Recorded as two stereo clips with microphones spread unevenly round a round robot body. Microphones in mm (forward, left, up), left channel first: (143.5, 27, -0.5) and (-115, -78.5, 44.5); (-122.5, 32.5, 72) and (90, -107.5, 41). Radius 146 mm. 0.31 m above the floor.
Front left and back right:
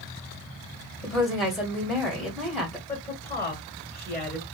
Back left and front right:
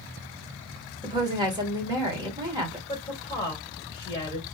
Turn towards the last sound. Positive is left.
turn(degrees=80)